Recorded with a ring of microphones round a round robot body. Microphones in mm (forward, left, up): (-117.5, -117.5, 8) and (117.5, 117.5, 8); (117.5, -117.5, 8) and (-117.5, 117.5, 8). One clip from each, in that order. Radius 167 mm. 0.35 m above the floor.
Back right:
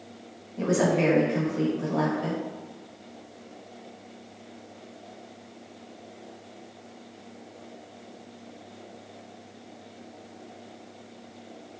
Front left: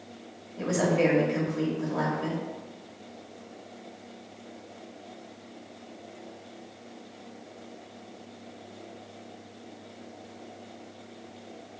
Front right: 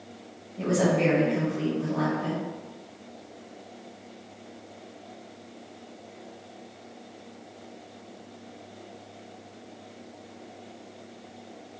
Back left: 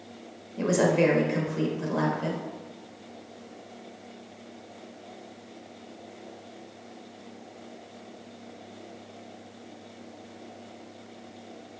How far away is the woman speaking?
About 1.0 m.